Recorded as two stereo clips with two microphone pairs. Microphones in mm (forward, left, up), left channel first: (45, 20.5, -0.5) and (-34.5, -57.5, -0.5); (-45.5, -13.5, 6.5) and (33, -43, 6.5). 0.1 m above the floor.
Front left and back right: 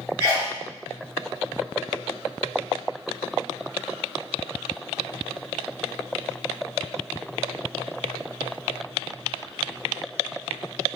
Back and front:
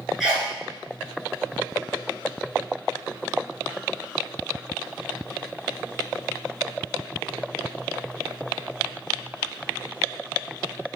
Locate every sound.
0.2 s a sneeze: 100° right, 1.4 m